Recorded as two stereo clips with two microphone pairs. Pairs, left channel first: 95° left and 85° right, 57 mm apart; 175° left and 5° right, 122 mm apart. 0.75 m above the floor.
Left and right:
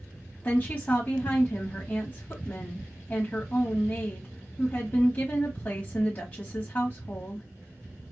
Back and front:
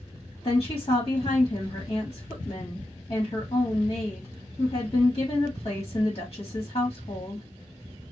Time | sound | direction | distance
0.4 | a woman speaking | 140° left | 1.5 m